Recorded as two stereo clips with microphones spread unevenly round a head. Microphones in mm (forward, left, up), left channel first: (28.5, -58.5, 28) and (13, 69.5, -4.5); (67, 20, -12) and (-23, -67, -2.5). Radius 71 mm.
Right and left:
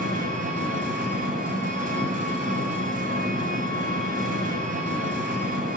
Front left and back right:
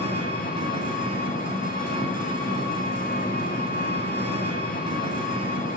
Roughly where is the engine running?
Left.